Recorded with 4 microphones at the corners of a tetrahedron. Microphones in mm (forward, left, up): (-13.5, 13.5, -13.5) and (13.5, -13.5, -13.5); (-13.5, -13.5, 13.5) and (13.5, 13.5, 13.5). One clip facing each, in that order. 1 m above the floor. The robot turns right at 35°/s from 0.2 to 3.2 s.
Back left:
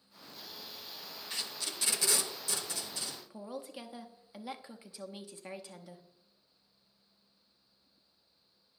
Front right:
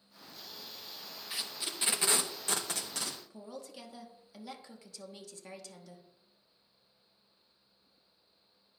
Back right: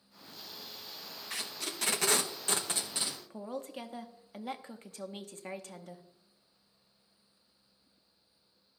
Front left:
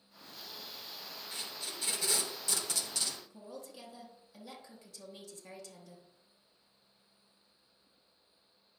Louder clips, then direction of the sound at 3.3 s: Back left 3 dB, back right 8 dB; 160° right.